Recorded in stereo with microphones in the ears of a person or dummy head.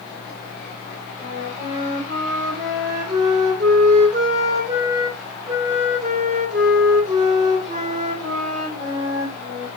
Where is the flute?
45° right (ahead or behind), 2.5 m.